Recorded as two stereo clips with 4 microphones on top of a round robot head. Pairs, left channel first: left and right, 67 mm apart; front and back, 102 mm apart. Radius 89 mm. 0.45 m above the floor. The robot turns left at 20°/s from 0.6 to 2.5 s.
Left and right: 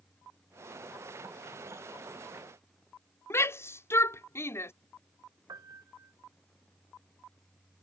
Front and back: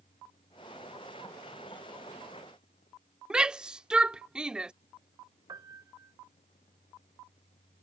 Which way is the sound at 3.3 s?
105° left.